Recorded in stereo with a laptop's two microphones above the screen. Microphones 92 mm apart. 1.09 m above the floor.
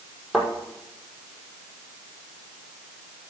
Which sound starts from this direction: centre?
A thud, at 0.3 s.